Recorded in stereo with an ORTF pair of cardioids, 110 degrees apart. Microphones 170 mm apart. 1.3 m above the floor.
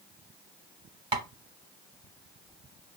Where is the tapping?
30° right, 1.2 m.